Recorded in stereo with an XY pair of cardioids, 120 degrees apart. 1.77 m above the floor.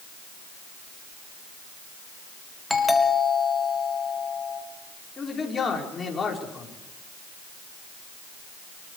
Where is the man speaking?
30° left, 5.5 m.